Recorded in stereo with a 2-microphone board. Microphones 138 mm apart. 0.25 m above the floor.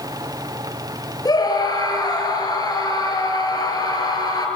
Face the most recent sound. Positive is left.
turn(degrees=30)  # may be behind; listen again after turning